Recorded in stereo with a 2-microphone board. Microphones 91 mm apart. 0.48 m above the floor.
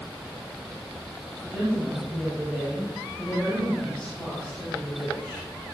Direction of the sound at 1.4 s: 10° right (ahead or behind).